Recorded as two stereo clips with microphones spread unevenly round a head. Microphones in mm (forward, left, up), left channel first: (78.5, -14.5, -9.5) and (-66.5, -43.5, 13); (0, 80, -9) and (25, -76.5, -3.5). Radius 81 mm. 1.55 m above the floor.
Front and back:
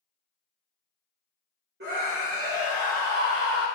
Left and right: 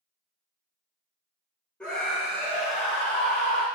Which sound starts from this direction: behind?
A scream, at 1.8 s.